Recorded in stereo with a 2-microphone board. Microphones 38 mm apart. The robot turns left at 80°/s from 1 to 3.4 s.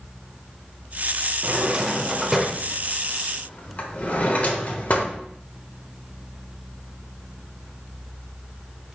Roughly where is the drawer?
Right.